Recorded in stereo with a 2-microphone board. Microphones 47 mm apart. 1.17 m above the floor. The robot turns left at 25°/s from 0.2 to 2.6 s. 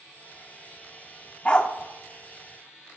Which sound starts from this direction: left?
A dog barking, at 1.4 s.